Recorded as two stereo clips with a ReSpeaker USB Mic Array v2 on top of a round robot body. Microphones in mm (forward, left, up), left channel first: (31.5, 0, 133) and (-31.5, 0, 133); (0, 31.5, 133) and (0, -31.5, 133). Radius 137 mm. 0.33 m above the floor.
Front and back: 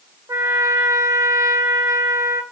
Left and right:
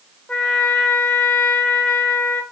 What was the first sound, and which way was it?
A trumpet, 155° left.